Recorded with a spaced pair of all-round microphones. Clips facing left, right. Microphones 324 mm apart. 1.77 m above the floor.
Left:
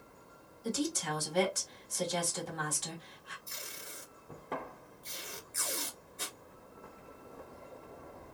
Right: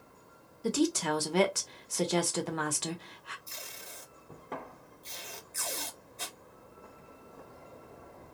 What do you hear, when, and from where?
0.6 s a woman speaking: 75° right (ahead or behind), 0.9 m
3.5 s tape being pulled: 15° left (ahead or behind), 1.7 m